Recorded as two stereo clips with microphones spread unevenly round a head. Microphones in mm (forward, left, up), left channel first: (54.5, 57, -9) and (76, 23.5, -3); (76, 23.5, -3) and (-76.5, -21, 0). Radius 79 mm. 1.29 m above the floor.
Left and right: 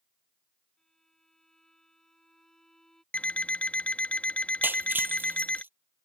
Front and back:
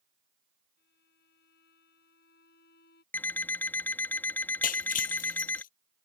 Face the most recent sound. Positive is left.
turn(degrees=-25)